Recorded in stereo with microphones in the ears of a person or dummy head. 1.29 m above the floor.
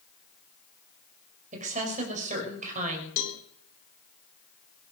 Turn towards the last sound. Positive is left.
turn(degrees=80)